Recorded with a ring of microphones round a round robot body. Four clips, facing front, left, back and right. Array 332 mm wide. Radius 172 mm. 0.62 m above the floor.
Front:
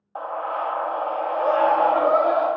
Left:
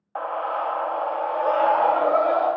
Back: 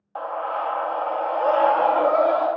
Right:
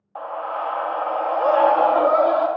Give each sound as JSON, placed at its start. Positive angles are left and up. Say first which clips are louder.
{"t": 0.1, "sound": "a scream", "louder": "left 1 dB, even", "azimuth_deg": 100, "distance_m": 0.7}